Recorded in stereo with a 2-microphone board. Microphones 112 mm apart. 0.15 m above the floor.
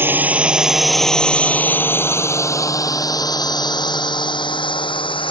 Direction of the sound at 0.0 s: 20° right (ahead or behind).